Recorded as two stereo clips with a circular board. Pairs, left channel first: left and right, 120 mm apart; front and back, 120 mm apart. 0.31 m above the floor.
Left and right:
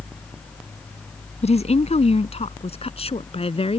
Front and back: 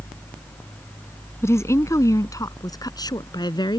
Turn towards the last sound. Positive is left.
turn(degrees=55)